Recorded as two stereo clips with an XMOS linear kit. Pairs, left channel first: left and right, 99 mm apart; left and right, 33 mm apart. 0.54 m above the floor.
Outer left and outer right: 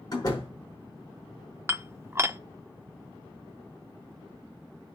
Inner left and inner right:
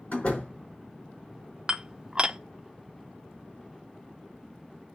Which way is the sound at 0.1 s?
45° left (ahead or behind).